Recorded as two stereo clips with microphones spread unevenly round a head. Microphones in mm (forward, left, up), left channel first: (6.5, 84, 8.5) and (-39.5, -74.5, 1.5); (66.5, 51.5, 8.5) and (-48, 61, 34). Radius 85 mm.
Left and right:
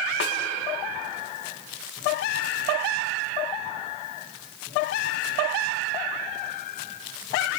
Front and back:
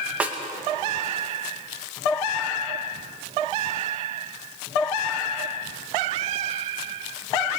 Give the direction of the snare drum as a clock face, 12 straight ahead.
9 o'clock.